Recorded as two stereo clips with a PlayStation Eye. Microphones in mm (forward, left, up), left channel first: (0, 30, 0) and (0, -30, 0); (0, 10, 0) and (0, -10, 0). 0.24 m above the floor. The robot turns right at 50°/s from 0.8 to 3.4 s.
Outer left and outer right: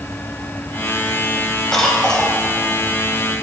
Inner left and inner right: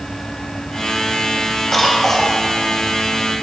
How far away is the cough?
About 1.6 m.